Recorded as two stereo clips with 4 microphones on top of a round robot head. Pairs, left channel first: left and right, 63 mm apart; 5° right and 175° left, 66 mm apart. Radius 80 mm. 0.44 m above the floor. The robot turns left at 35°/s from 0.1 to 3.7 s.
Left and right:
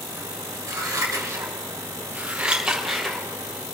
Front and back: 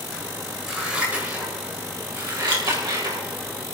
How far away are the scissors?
About 4.5 m.